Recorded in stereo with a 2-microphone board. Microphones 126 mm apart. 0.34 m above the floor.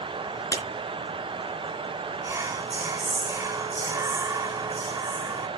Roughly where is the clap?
Left.